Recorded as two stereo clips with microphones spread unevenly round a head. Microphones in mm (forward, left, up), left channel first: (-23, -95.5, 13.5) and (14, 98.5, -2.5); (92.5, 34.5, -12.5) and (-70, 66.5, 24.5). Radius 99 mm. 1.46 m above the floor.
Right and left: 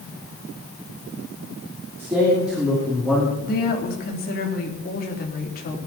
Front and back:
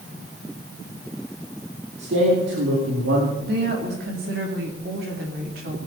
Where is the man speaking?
160° left, 3 m; by 3.3 s 175° left, 2.5 m.